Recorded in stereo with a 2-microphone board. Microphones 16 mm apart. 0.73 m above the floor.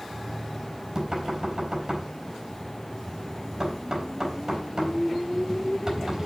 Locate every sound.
0.1 s knocking: 40° right (ahead or behind), 4.5 m